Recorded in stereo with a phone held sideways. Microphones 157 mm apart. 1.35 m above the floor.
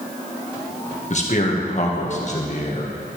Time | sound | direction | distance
1.1 | a man speaking | 50° left (ahead or behind) | 1.6 m